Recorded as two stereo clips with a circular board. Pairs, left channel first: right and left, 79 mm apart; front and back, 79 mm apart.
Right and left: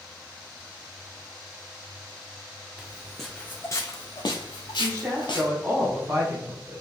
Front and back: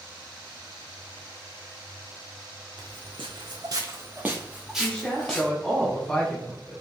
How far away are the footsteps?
About 0.7 m.